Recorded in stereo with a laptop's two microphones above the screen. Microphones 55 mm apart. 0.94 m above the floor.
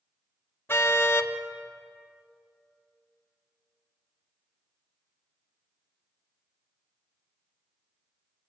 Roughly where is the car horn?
Left.